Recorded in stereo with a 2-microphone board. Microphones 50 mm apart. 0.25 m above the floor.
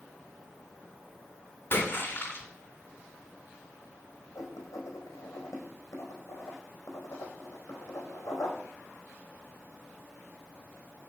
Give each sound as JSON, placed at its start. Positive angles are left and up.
{"t": 1.7, "sound": "a splash", "side_deg": 50, "distance_m": 3.0}
{"t": 4.3, "sound": "writing", "side_deg": 85, "distance_m": 4.5}